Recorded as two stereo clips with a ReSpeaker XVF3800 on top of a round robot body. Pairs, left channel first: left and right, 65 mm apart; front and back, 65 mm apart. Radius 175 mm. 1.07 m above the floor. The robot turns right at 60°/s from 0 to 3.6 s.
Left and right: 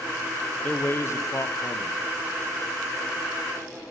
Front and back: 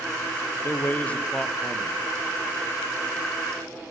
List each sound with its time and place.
0.6 s a man speaking: 35° left, 0.8 m; by 2.0 s 115° left, 0.8 m